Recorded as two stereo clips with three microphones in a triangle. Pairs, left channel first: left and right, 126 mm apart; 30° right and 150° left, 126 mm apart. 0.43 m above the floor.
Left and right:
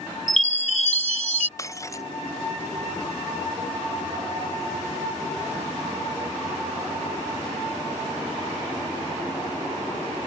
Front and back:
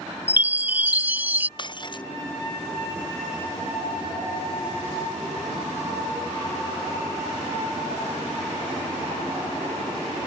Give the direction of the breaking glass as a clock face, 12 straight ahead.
11 o'clock.